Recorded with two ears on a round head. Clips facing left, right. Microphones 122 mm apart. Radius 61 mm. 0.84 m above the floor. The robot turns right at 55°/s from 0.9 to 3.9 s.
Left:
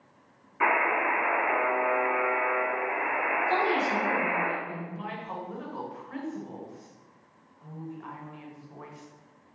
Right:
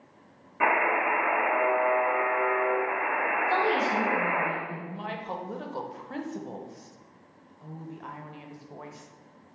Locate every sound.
0.6 s a buzzer: 40° right, 1.9 m; by 4.5 s 125° left, 1.9 m
3.5 s a woman speaking: 25° left (ahead or behind), 1.9 m; by 4.8 s centre (ahead or behind), 1.9 m
4.9 s a woman speaking: 40° right (ahead or behind), 0.5 m